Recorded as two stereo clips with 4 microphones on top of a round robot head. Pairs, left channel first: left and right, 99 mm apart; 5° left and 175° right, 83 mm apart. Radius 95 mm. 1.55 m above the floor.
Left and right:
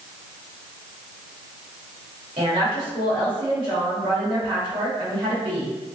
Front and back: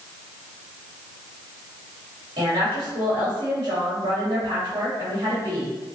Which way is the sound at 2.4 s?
130° right.